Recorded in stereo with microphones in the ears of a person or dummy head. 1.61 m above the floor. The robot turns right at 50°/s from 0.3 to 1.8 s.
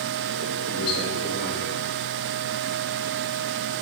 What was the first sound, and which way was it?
A man speaking, 65° left.